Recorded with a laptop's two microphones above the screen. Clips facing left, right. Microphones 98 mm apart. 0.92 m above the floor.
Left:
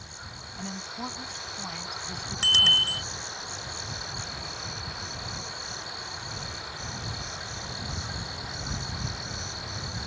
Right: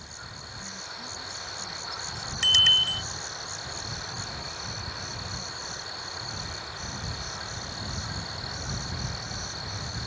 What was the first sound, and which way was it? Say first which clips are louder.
A woman speaking: left 8 dB; 60° left (ahead or behind).